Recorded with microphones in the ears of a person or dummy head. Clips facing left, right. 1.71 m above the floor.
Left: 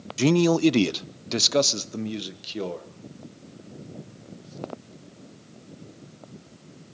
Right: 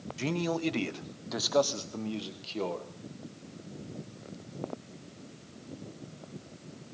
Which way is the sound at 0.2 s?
80° left.